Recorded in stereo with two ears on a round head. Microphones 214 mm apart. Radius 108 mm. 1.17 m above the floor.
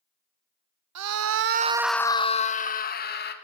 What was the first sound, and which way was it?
A scream, 80° right.